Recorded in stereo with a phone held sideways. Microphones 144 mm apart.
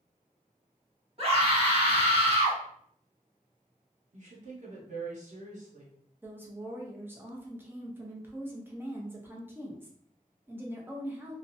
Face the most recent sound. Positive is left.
turn(degrees=-15)  # may be behind; listen again after turning